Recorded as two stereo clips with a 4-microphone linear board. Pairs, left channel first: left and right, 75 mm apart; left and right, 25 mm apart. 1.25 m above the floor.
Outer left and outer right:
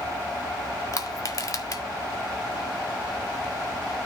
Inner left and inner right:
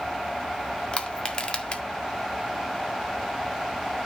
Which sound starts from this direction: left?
Crushing, at 0.9 s.